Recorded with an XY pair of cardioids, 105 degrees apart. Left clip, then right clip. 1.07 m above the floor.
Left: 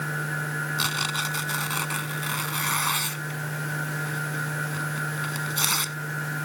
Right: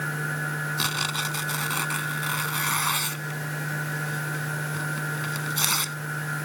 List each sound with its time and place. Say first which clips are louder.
0.8 s tearing paper: left 1 dB; straight ahead